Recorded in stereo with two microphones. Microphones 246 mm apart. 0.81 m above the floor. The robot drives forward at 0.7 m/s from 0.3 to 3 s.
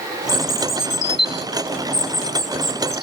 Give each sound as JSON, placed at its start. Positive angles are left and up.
{"t": 0.3, "sound": "a bird", "side_deg": 80}